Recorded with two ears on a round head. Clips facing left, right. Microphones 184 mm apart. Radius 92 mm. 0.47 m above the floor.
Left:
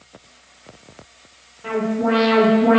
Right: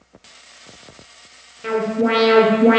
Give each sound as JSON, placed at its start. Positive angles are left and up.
{"t": 1.6, "sound": "an alarm", "side_deg": -35, "distance_m": 0.7}